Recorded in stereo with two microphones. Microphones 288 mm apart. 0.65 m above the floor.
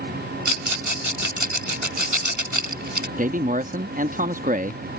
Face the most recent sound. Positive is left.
turn(degrees=-30)  # may be behind; listen again after turning